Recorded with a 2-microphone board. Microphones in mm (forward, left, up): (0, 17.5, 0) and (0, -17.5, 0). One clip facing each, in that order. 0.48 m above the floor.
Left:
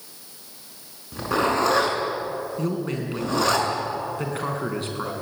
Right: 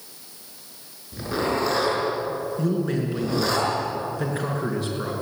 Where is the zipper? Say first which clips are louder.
Left 3 dB; 80° left, 6 m.